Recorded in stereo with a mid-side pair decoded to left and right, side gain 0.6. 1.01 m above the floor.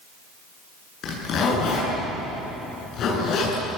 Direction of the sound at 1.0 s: 55° left.